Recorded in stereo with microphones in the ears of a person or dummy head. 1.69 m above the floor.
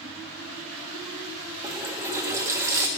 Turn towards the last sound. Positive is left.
turn(degrees=-15)  # may be behind; listen again after turning